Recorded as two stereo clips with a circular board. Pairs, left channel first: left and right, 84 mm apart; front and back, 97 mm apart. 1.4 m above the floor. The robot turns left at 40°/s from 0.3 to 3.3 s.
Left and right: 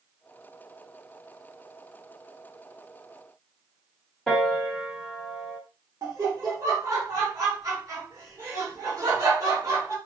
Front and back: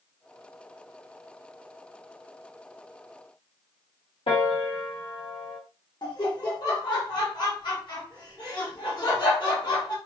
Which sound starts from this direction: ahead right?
Laughter, at 6.0 s.